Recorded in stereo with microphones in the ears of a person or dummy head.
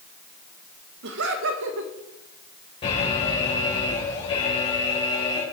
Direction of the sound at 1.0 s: 80° right.